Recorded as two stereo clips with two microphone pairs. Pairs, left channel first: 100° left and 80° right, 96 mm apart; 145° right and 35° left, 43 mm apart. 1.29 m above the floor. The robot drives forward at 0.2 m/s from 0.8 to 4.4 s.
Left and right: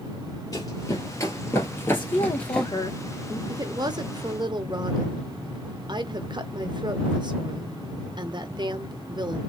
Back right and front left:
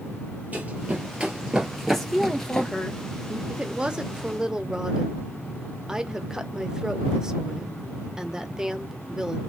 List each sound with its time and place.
0.5 s running footsteps: 75° left, 1.8 m; by 2.7 s 165° left, 1.3 m
1.9 s a woman speaking: 130° left, 1.5 m; by 3.4 s 140° left, 1.7 m
3.5 s a woman speaking: 30° right, 0.8 m; by 9.4 s 40° right, 0.7 m